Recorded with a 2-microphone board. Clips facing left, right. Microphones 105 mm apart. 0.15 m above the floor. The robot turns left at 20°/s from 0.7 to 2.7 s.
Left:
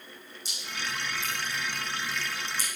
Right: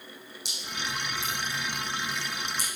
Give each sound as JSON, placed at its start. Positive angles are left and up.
{"t": 0.5, "sound": "dripping", "side_deg": -75, "distance_m": 5.0}